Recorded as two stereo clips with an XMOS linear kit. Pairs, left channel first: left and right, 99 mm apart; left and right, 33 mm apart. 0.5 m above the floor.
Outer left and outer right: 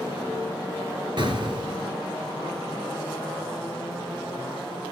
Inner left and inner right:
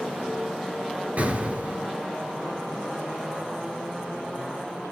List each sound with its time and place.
1.2 s an explosion: 50° right (ahead or behind), 2 m